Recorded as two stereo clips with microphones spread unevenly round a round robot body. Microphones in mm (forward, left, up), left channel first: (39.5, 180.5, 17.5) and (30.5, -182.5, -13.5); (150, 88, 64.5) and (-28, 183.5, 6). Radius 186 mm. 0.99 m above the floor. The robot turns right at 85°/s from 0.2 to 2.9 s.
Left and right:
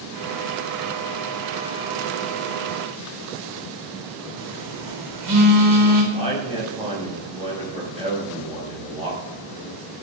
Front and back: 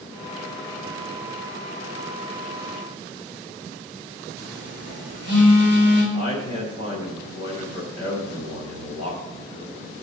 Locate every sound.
4.4 s a phone buzzing: 60° right, 4 m
6.1 s a man speaking: 15° right, 5.5 m